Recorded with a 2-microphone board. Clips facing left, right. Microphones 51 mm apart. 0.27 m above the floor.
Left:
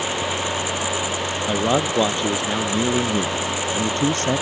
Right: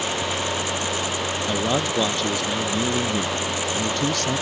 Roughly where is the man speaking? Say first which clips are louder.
Left 4 dB; centre.